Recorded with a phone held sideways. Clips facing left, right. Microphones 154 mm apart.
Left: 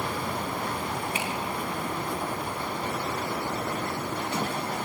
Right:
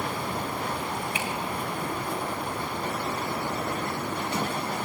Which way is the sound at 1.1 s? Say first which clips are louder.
Even; 35° left (ahead or behind).